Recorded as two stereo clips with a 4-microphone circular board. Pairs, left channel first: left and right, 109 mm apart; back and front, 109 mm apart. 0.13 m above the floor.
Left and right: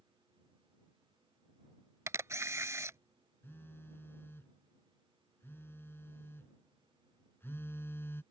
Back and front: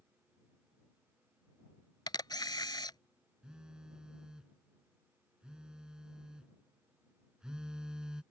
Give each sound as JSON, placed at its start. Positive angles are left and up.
{"t": 2.1, "sound": "a camera shutter", "azimuth_deg": -145}
{"t": 3.4, "sound": "a phone buzzing", "azimuth_deg": 70}